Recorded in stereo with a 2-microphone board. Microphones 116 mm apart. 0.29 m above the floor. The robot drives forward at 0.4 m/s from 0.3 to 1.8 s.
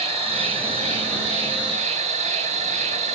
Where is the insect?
70° right (ahead or behind), 1.8 m; by 3.1 s 85° right, 1.7 m.